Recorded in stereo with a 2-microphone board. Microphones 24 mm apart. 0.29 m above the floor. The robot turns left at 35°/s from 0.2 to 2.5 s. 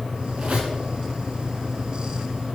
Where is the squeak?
70° right (ahead or behind), 1.9 m; by 0.8 s 75° right (ahead or behind), 1.9 m.